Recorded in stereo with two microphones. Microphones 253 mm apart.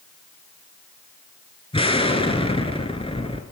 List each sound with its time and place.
1.7 s an explosion: 20° left (ahead or behind), 0.8 m